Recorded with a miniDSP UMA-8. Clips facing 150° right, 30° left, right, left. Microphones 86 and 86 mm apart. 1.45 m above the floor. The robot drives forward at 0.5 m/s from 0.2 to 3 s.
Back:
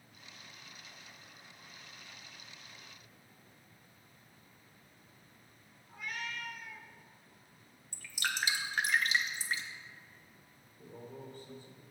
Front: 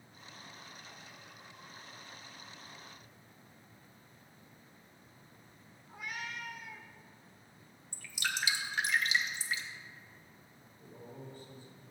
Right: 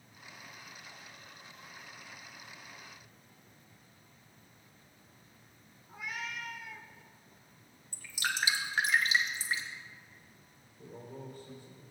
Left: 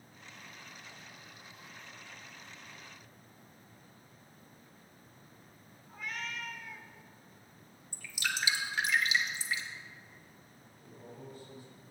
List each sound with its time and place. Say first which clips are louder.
5.9 s a cat meowing: back 1 dB, even; 25° right, 0.9 m
7.9 s dripping: back 1 dB, right 2 dB; 125° right, 1.3 m
10.8 s a man speaking: back 2 dB, right 4 dB; 125° right, 4 m